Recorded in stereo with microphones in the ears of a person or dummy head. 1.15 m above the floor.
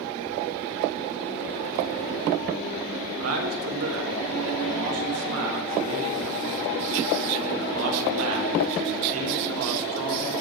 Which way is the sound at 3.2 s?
85° right.